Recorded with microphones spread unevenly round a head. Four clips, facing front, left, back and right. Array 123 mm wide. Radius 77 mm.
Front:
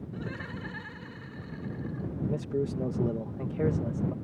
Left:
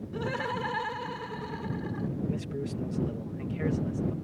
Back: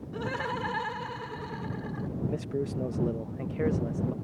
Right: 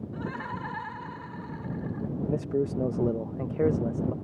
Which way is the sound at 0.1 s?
150° left.